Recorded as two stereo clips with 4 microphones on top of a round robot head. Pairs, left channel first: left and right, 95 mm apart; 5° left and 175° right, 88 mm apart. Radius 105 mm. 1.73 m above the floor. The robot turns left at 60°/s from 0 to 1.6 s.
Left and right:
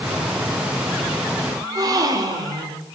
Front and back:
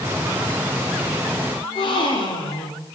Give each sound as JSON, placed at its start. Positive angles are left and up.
{"t": 1.6, "sound": "a gasp", "azimuth_deg": -40, "distance_m": 3.5}